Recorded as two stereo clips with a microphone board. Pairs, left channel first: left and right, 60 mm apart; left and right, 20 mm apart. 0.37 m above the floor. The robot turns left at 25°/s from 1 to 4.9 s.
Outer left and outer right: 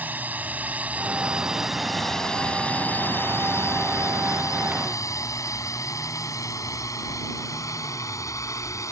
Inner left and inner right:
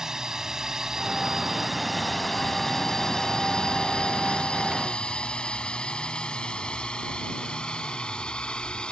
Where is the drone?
30° right (ahead or behind); by 8.9 s 60° left (ahead or behind).